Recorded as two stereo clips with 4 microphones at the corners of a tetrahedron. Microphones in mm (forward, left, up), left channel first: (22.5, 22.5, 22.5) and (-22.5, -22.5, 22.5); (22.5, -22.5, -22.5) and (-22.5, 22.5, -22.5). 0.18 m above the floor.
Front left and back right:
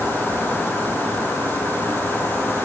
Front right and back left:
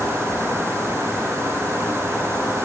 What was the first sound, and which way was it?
Only background noise.